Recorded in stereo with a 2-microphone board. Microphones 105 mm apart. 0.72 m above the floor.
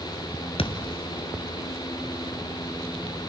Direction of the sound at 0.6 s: 65° left (ahead or behind).